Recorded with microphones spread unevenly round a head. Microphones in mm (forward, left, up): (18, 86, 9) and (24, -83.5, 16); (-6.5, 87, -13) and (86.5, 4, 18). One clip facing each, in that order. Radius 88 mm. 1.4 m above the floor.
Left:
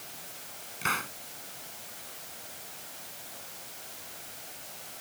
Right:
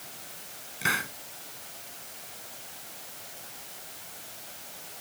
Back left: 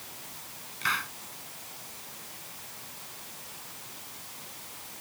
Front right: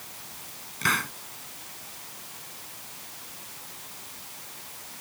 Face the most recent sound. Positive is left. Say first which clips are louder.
# right 2 dB, front right 4 dB
turn(degrees=-10)